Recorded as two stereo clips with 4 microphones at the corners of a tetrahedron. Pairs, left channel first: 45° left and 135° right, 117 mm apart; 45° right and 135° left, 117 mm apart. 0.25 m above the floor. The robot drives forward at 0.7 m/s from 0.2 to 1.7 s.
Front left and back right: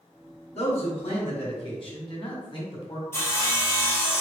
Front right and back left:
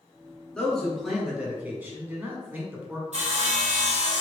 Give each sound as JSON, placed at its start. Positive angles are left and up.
{"t": 0.6, "sound": "a man speaking", "azimuth_deg": 40, "distance_m": 1.8}
{"t": 3.1, "sound": "sawing", "azimuth_deg": 115, "distance_m": 1.4}